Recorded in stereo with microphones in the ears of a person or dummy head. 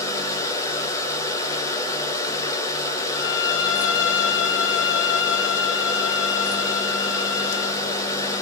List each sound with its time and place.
0.0 s a machine running: 20° left (ahead or behind), 1.9 m
3.1 s a violin: 65° left (ahead or behind), 1.7 m